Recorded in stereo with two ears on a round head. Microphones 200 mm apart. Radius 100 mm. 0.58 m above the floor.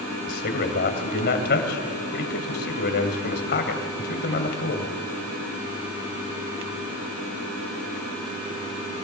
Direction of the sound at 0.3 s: 50° left (ahead or behind).